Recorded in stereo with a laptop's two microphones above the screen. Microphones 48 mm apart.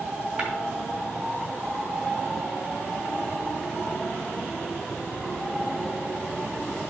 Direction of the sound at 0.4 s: 25° right (ahead or behind).